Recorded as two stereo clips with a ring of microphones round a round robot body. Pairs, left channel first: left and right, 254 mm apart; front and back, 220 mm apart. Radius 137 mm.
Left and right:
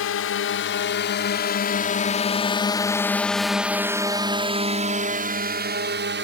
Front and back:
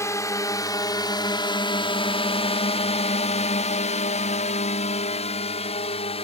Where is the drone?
75° left; by 6.2 s 60° right.